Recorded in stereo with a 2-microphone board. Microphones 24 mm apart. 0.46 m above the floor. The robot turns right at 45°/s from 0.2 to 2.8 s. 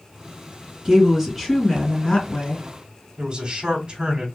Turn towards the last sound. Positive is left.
turn(degrees=-40)  # may be behind; listen again after turning